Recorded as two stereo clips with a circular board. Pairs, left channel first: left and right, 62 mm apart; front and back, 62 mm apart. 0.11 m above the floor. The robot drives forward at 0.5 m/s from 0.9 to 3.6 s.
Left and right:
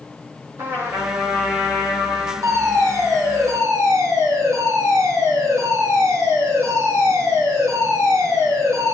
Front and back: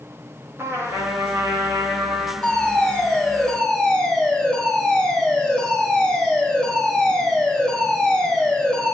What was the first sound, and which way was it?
A trumpet, 130° right.